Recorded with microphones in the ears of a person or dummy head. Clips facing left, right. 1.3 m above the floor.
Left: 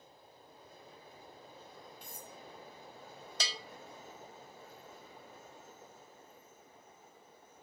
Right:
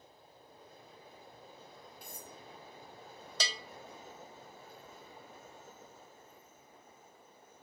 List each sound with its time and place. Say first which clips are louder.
2.0 s cutlery clinking: even; 10° right (ahead or behind), 1.4 m
3.4 s a bell: right 2 dB; 85° right, 0.6 m